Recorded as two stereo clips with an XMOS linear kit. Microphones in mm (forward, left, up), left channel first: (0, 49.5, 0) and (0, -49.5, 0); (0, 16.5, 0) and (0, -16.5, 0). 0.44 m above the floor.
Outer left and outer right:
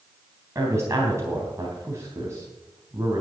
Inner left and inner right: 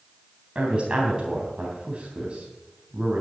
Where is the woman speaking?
30° right (ahead or behind), 3.5 m.